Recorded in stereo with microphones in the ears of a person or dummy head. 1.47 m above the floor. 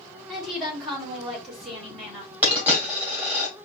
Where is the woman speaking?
Centre (ahead or behind), 3 m.